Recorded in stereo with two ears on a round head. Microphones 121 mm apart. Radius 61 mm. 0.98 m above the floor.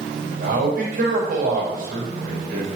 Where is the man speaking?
65° right (ahead or behind), 6 m.